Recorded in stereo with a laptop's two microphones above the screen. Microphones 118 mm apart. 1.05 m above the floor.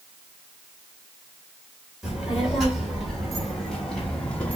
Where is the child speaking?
Centre (ahead or behind), 2.5 m; by 4.6 s 15° left (ahead or behind), 1.2 m.